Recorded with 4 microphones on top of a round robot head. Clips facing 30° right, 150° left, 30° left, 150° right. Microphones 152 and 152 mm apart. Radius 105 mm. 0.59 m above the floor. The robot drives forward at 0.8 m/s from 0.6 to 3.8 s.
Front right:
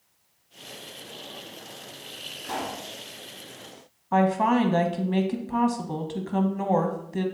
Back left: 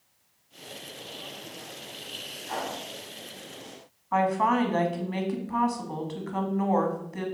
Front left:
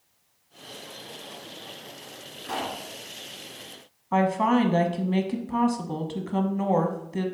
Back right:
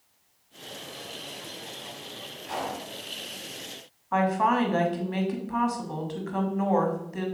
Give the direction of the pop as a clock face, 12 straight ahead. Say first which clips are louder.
Front right 1 dB, front left 1 dB; 12 o'clock.